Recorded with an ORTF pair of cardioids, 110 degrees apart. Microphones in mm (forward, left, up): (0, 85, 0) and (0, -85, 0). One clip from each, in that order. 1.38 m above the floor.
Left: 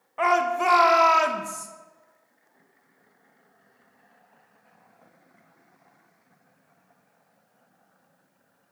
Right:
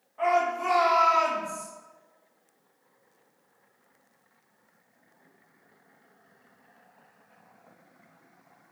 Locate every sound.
0.2 s a shout: 65° left, 1.3 m